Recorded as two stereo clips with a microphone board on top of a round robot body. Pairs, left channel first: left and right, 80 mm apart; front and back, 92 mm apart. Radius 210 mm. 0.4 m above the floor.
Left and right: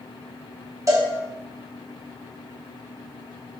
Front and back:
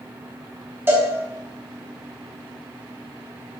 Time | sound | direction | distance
0.9 | a cowbell | 120° right | 1.7 m